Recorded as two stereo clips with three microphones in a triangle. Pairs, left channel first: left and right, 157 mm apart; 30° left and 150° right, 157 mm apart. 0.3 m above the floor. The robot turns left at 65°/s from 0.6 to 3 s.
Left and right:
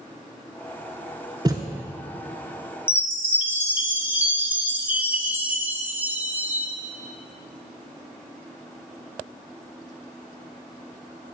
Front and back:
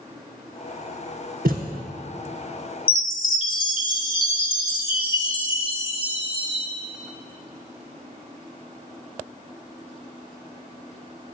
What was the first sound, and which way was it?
A thud, 155° right.